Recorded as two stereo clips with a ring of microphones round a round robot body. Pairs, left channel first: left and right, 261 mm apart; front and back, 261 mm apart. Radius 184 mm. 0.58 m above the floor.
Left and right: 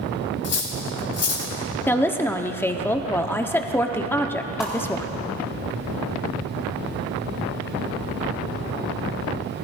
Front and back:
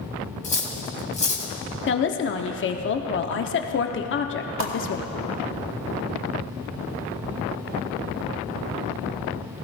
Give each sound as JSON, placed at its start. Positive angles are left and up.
{"t": 0.4, "sound": "cutlery clinking", "azimuth_deg": 65, "distance_m": 2.5}
{"t": 1.9, "sound": "a woman speaking", "azimuth_deg": 10, "distance_m": 0.9}
{"t": 4.6, "sound": "a whoosh", "azimuth_deg": -175, "distance_m": 1.2}